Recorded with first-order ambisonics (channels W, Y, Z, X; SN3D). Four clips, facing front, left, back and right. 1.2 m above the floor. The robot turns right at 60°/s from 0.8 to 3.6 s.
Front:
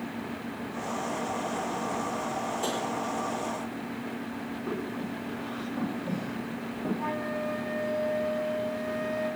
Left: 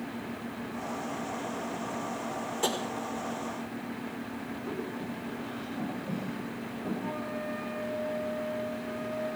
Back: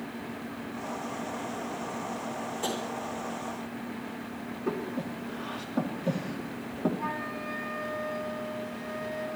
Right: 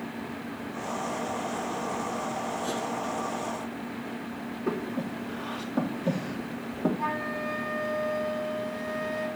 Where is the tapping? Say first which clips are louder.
Left 6 dB, back 1 dB; 90° left, 4 m; by 2.8 s 95° left, 4 m.